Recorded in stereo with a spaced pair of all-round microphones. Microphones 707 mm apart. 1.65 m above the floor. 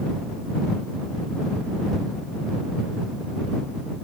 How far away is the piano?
I don't hear a piano.